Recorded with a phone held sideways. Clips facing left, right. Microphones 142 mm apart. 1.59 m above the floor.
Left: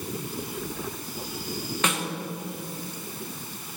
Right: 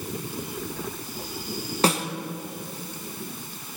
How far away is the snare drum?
About 0.9 m.